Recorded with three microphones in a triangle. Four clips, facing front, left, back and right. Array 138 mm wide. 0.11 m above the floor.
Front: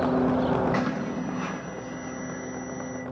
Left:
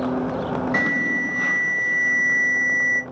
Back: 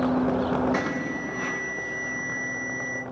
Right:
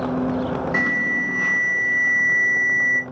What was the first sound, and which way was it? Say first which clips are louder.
An alarm: even, even; 70° left.